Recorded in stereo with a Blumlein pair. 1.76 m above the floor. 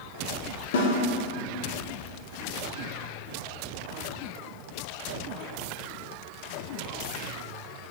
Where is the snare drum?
60° left, 1.7 m.